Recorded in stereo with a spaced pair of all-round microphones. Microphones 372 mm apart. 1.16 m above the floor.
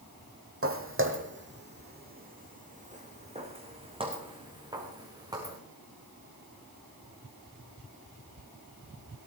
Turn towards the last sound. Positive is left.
turn(degrees=-10)  # may be behind; listen again after turning